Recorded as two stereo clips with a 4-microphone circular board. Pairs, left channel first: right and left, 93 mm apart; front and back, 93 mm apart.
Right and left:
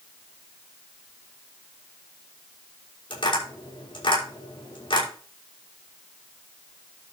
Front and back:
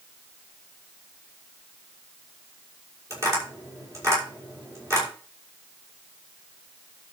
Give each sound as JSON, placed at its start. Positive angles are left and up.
{"t": 3.1, "sound": "tapping", "azimuth_deg": -120, "distance_m": 6.5}